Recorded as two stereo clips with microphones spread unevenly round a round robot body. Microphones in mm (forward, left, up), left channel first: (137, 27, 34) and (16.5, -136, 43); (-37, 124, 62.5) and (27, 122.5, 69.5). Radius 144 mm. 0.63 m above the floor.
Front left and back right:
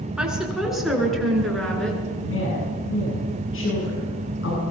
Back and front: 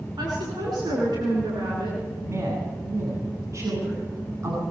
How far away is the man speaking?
About 8.5 m.